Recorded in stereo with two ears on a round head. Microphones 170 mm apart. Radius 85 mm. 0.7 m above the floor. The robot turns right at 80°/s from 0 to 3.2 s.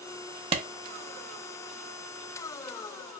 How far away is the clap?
About 0.6 m.